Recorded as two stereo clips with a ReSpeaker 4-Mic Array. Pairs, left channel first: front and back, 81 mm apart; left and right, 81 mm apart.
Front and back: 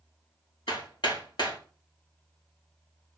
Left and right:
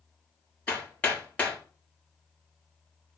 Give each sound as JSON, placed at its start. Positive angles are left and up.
{"t": 0.7, "sound": "hammering", "azimuth_deg": 15, "distance_m": 3.5}